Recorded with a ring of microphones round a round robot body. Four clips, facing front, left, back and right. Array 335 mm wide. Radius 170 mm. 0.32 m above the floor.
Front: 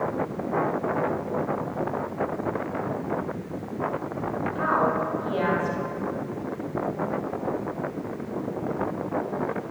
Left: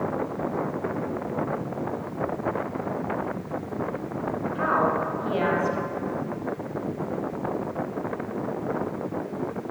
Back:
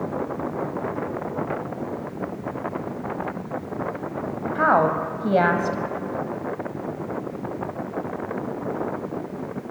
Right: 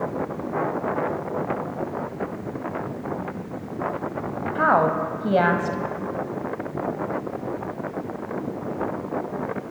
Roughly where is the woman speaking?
Behind right.